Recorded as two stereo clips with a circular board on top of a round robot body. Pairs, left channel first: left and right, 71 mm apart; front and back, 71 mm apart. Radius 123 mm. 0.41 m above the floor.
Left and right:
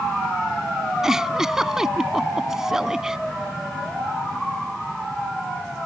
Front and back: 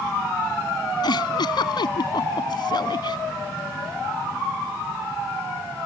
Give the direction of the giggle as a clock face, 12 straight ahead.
12 o'clock.